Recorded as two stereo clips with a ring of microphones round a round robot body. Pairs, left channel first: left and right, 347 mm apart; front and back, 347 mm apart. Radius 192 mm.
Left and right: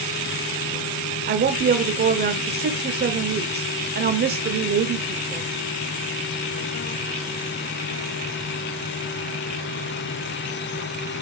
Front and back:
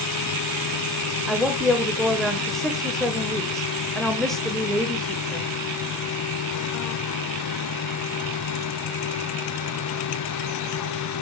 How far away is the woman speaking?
About 0.9 m.